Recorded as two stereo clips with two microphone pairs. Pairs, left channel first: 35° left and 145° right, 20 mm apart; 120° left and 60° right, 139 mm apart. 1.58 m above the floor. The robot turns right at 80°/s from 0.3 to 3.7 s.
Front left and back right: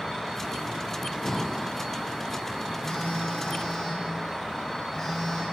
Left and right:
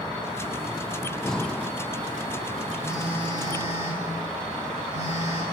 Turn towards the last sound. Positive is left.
turn(degrees=85)